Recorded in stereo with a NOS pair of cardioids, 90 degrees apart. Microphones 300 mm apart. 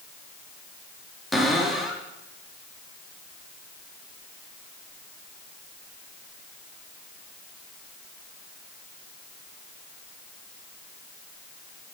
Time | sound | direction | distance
1.3 | a cupboard door | straight ahead | 1.4 m